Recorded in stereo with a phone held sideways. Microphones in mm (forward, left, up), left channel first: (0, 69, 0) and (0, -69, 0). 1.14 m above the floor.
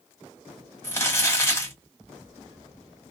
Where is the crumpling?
15° left (ahead or behind), 1.6 m.